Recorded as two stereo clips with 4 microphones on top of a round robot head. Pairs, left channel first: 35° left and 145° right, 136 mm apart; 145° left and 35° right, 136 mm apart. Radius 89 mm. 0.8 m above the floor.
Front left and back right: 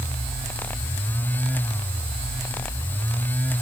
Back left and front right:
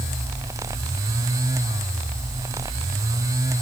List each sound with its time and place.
Only background noise.